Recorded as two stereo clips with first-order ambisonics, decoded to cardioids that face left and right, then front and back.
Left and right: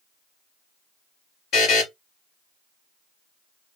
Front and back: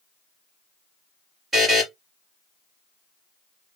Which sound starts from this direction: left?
A buzzer, at 1.5 s.